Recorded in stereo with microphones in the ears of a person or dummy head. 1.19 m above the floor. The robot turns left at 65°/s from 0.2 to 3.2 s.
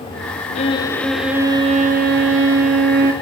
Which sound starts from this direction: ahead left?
A violin, at 0.6 s.